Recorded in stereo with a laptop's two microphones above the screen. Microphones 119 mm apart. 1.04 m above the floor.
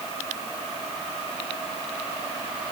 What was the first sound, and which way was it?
Only background noise.